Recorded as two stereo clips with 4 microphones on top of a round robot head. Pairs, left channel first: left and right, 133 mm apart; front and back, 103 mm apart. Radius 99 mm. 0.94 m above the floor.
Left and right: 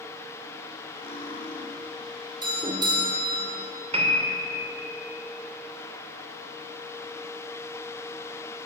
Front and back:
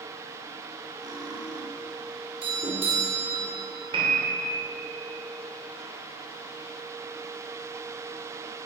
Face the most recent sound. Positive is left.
turn(degrees=-130)